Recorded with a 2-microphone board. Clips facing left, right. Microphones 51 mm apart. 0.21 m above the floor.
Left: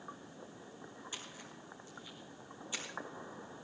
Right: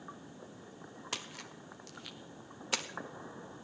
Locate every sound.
1.1 s a splash: 80° right, 0.9 m